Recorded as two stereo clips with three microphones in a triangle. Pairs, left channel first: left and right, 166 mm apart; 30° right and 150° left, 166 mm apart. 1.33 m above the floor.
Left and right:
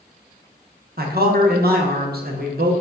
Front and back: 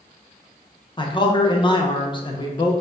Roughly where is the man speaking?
Right.